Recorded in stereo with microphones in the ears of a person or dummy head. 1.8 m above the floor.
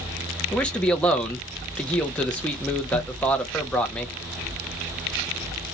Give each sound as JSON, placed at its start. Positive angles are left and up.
{"t": 0.5, "sound": "a man speaking", "side_deg": 5, "distance_m": 0.5}